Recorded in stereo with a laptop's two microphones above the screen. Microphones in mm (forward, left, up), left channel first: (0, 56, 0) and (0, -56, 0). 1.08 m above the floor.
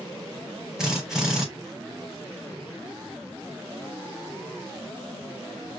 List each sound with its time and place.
0.8 s a drill: 5° right (ahead or behind), 4 m